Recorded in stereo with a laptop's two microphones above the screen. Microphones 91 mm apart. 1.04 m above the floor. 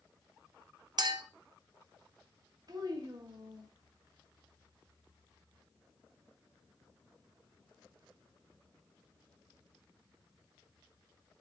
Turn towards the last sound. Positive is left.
turn(degrees=-45)  # may be behind; listen again after turning